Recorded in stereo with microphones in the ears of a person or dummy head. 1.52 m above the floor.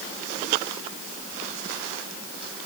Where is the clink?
I don't hear a clink.